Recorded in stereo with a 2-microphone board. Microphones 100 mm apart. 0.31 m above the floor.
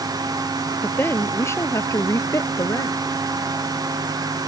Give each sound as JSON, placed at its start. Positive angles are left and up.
{"t": 0.8, "sound": "a woman speaking", "side_deg": 20}